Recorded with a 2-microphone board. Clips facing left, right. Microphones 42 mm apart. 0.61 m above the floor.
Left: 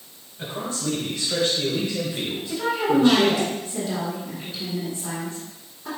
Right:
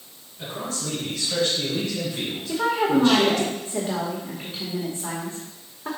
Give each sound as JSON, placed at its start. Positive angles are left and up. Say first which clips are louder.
{"t": 0.4, "sound": "a man speaking", "louder": "left 2 dB", "side_deg": 25, "distance_m": 3.5}
{"t": 2.5, "sound": "a woman speaking", "louder": "right 1 dB", "side_deg": -45, "distance_m": 2.0}